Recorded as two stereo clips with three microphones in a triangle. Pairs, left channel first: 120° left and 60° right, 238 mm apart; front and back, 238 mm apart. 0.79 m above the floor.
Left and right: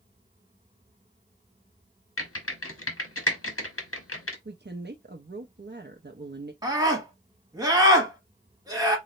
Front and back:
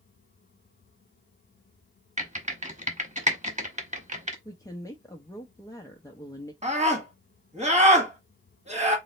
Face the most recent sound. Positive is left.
turn(degrees=-130)